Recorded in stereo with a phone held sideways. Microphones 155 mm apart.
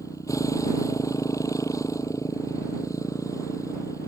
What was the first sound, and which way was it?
A motorcycle, 20° left (ahead or behind).